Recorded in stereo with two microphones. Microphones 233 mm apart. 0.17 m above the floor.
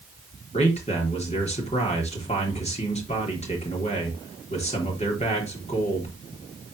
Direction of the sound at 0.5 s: 30° left (ahead or behind).